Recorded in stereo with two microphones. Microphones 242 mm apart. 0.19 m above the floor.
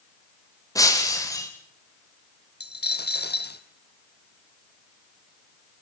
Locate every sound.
0.8 s breaking glass: 15° left (ahead or behind), 4.5 m
2.6 s a dropped coin: 40° left (ahead or behind), 1.5 m